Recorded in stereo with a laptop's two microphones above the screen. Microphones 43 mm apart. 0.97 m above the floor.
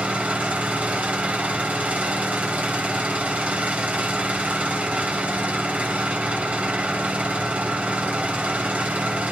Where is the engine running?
35° right (ahead or behind), 3 m.